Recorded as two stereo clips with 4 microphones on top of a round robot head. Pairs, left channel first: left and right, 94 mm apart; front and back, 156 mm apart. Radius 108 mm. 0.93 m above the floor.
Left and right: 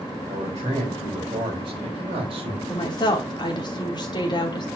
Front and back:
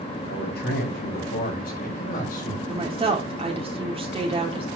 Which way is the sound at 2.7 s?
125° left.